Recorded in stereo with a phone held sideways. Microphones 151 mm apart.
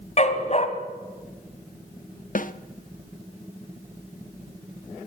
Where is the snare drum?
60° left (ahead or behind), 1.1 m.